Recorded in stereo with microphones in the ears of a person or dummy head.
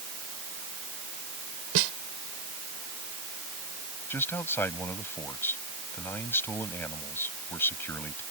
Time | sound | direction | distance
1.8 | a snare drum | 70° right (ahead or behind) | ?
4.1 | a man speaking | 10° left (ahead or behind) | ?